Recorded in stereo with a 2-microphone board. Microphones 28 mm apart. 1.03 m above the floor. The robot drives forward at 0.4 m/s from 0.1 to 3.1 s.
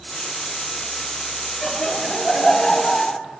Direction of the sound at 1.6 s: 15° left (ahead or behind).